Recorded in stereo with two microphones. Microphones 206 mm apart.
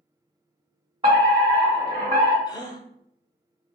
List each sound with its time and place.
1.0 s a fire alarm: 25° right (ahead or behind), 2.0 m
2.5 s a gasp: 20° left (ahead or behind), 0.7 m